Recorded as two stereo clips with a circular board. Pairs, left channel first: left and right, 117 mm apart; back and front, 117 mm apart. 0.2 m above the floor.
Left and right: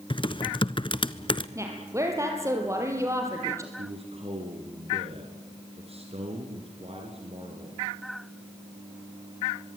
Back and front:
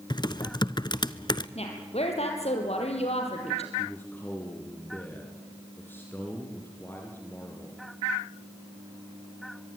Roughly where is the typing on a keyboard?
Behind left.